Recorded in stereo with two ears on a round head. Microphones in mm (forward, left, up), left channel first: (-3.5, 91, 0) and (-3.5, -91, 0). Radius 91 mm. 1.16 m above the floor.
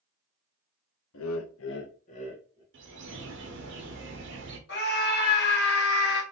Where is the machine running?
I don't hear a machine running.